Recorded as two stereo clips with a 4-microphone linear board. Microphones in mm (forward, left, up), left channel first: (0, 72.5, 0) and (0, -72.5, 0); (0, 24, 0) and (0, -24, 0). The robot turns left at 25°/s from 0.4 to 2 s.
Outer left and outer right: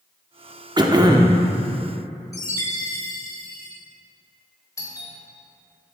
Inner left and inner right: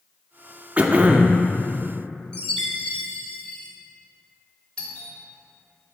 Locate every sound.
0.8 s throat clearing: 30° right (ahead or behind), 0.5 m; by 1.4 s 25° right (ahead or behind), 0.5 m
2.3 s a chime: 20° left (ahead or behind), 1.2 m
4.8 s a doorbell: 20° left (ahead or behind), 1.2 m